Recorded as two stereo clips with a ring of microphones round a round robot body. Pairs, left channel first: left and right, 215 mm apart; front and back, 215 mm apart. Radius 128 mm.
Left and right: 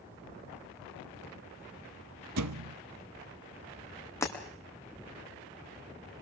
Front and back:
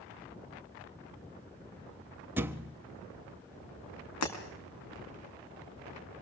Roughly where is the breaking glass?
Ahead.